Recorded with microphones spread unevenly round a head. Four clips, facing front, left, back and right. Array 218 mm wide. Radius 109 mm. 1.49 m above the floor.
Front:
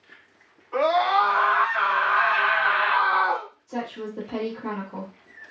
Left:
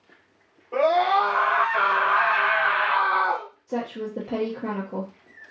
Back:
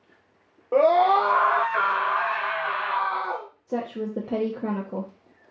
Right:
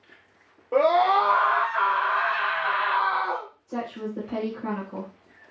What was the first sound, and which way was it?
A scream, 160° right.